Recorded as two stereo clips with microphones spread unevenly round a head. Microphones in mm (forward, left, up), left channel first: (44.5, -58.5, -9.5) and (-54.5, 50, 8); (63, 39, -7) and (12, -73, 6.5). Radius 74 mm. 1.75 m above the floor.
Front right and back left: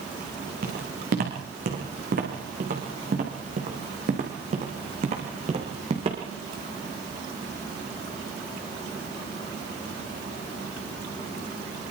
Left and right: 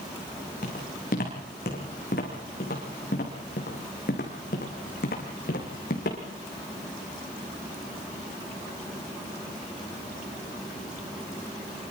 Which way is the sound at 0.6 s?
105° left.